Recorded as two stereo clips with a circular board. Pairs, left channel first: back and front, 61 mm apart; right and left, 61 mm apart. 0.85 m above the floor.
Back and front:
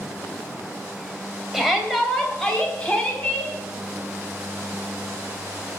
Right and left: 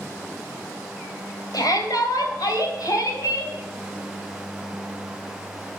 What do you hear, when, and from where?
1.5 s a shout: 85° right, 3.5 m; by 3.5 s 110° right, 5 m